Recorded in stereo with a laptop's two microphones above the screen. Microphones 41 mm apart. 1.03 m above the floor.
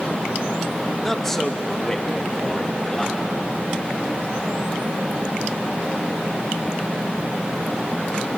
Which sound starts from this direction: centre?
A man speaking, at 1.0 s.